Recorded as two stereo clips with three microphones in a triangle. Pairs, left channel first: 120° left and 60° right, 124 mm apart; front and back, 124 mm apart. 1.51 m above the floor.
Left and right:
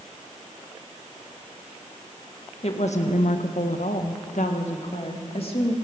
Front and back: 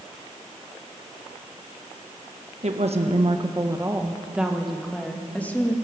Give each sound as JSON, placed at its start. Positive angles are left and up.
{"t": 2.6, "sound": "a woman speaking", "azimuth_deg": 155, "distance_m": 1.6}